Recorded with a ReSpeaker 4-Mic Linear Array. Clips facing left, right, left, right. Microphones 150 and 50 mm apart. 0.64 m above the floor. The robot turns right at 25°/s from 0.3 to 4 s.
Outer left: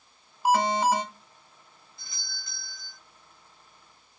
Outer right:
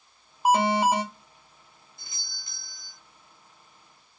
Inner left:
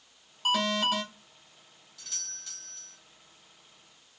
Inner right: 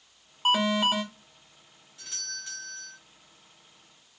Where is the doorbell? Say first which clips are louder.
Outer left 4 dB, inner right 7 dB; 20° right (ahead or behind), 1.1 m.